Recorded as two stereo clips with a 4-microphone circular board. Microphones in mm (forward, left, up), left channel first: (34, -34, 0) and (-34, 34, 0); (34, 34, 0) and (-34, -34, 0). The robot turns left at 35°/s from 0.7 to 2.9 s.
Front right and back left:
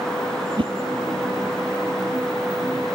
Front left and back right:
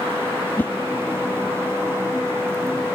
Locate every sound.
0.6 s a whoosh: 115° left